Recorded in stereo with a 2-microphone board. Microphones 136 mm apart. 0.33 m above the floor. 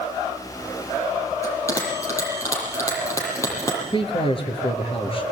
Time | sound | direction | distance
1.4 | a bell | 20° left (ahead or behind) | 8.5 m
3.9 | a man speaking | 40° left (ahead or behind) | 5.5 m